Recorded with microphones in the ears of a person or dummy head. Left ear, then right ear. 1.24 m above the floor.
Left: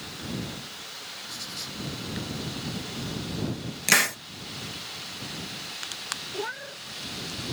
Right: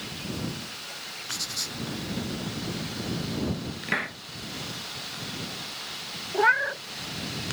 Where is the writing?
15° right (ahead or behind).